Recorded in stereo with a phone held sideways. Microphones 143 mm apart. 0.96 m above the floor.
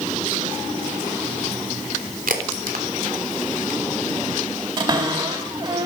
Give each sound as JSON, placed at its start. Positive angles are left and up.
{"t": 2.3, "sound": "a crack", "side_deg": -80, "distance_m": 3.0}
{"t": 4.8, "sound": "a cupboard door", "side_deg": -35, "distance_m": 4.0}